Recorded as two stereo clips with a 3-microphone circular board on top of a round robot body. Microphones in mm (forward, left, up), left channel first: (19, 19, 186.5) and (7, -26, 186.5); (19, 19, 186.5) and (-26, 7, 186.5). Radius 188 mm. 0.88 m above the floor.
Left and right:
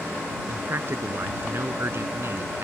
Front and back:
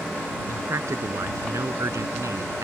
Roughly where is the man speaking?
Behind right.